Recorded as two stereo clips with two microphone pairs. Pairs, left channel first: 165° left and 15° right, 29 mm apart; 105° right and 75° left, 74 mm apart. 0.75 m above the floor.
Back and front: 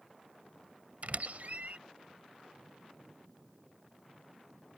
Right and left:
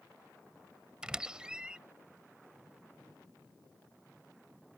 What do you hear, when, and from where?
1.0 s a squeak: straight ahead